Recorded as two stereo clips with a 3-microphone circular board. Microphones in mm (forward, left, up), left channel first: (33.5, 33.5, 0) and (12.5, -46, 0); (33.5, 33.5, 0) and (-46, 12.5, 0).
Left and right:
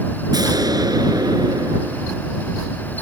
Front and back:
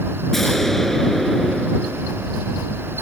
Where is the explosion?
70° right.